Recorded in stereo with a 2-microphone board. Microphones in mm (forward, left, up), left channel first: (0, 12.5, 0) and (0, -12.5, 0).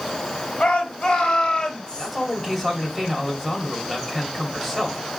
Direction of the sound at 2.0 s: 15° left (ahead or behind).